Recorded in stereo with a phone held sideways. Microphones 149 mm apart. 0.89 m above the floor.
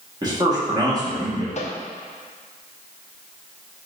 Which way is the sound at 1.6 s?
50° left (ahead or behind).